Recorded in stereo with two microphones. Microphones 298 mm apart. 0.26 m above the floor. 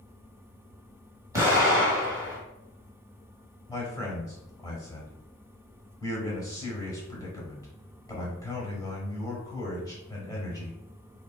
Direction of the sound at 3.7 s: 10° left (ahead or behind).